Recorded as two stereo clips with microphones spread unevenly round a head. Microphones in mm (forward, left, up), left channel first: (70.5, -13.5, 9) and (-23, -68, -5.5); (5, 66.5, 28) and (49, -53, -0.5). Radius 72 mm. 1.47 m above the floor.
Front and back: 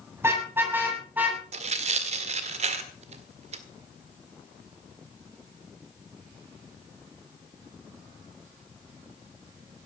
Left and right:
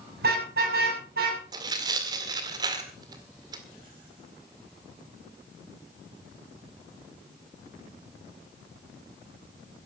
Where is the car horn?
80° right, 6.5 m; by 1.4 s 70° right, 7 m.